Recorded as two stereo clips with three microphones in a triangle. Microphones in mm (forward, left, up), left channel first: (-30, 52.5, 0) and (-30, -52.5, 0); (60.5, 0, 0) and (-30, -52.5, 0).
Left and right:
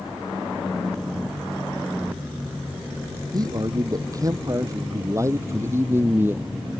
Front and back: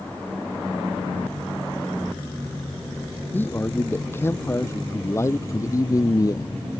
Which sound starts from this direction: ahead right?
A man speaking, at 3.3 s.